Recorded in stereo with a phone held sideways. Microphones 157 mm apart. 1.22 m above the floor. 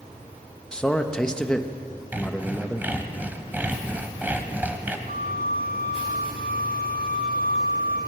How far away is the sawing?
About 1.6 m.